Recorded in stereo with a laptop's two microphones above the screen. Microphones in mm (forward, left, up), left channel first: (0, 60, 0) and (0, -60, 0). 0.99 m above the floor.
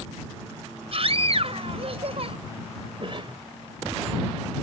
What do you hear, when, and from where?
0.9 s a scream: 55° right (ahead or behind)
3.0 s a cough: 45° right (ahead or behind)